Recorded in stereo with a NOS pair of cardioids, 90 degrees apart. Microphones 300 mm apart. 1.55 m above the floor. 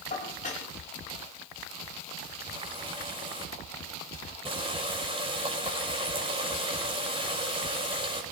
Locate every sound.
0.1 s dishes clattering: 25° left, 4.5 m
2.5 s a running tap: 20° right, 6 m